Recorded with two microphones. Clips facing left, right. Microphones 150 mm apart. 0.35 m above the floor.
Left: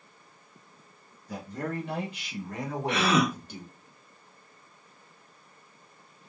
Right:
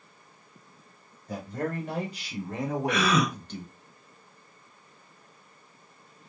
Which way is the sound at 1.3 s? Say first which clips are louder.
Right 2 dB; 55° right (ahead or behind).